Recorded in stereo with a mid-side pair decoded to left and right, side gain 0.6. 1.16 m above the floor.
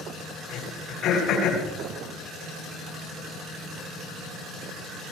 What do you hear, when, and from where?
0.5 s throat clearing: 60° left, 7.5 m